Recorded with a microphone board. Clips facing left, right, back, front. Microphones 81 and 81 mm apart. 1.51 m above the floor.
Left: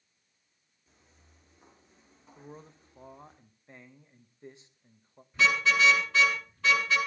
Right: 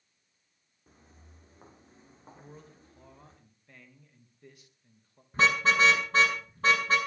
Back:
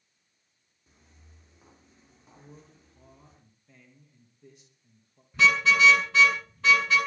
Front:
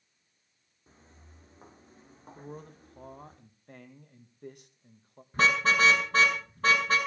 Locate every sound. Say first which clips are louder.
0.9 s footsteps: right 6 dB, front 4 dB; 50° right, 5 m; by 3.4 s 40° right, 7 m
2.4 s a man speaking: left 5 dB, front 8 dB; 25° left, 2.5 m
5.3 s a car horn: right 1 dB, back 2 dB; 45° right, 6.5 m